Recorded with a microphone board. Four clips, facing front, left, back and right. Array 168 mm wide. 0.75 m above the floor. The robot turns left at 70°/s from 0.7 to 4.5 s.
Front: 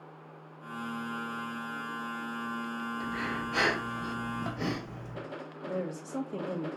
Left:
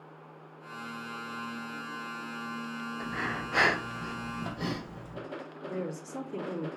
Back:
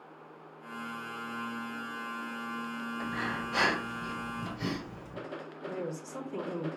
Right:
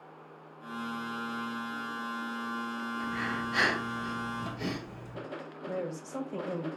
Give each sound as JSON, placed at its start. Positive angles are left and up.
{"t": 3.0, "sound": "breathing", "azimuth_deg": 130, "distance_m": 1.3}
{"t": 5.7, "sound": "a woman speaking", "azimuth_deg": -40, "distance_m": 1.4}